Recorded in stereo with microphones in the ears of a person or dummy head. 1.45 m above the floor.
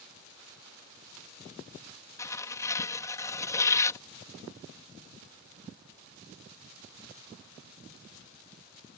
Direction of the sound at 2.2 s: 15° left (ahead or behind).